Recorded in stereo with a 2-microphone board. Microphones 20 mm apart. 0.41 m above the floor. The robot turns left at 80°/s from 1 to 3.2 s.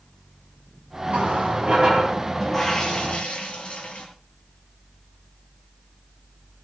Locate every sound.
1.1 s a running tap: 75° right, 7 m; by 4.0 s 115° left, 7 m